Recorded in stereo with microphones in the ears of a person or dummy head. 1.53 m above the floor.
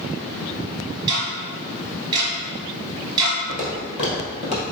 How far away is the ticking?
About 0.9 m.